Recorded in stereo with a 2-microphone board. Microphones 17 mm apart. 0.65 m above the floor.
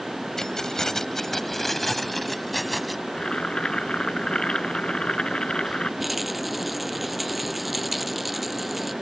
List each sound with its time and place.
0.4 s keys jangling: 35° left (ahead or behind); by 3.0 s centre (ahead or behind)
3.1 s boiling: 65° left (ahead or behind)
6.0 s a rattle: 5° right (ahead or behind)